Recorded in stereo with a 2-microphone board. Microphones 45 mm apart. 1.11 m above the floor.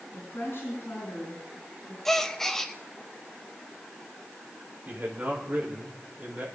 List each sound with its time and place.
0.1 s a woman speaking: 60° left (ahead or behind), 9 m
2.0 s a gasp: 10° left (ahead or behind), 0.8 m
4.8 s a man speaking: 35° right (ahead or behind), 4 m